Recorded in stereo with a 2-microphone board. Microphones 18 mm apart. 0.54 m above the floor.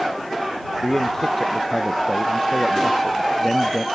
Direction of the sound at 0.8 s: 20° left (ahead or behind).